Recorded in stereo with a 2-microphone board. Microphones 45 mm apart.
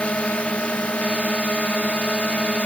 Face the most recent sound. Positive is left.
turn(degrees=30)  # may be behind; listen again after turning